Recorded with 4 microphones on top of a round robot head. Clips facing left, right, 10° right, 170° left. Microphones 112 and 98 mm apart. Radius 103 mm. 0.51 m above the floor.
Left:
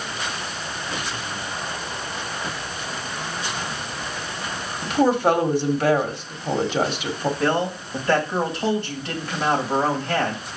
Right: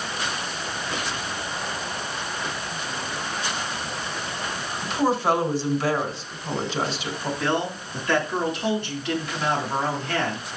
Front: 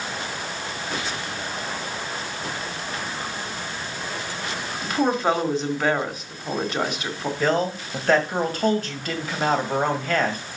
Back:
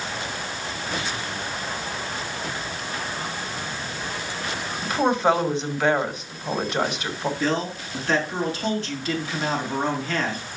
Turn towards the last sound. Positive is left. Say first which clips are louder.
# left 2 dB, front 6 dB
turn(degrees=30)